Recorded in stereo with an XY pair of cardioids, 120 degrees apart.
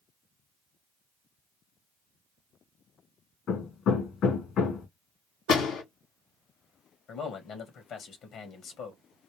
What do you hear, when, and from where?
3.5 s hammering: 60° left, 2 m
5.5 s a door slam: 70° left, 2.5 m
7.1 s a man speaking: 60° left, 1.8 m